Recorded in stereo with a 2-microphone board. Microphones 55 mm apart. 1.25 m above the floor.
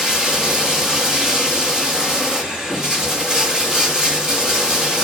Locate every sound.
0.0 s running water: 10° right (ahead or behind), 2.5 m